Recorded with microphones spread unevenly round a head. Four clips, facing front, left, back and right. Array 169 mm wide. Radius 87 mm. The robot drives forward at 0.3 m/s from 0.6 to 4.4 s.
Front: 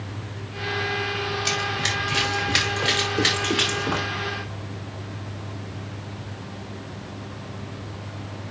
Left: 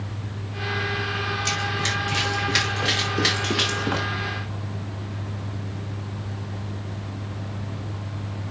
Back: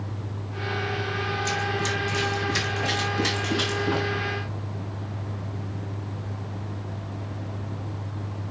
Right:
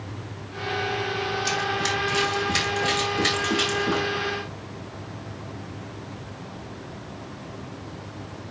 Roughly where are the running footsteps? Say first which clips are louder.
Right 2 dB, even; ahead left.